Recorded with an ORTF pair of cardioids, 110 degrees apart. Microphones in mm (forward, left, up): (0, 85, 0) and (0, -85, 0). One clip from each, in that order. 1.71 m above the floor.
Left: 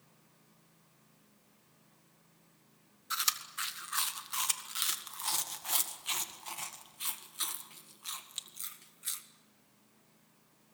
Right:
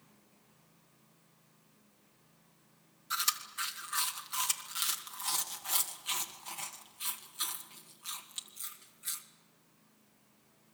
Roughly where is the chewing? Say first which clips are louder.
Even; ahead.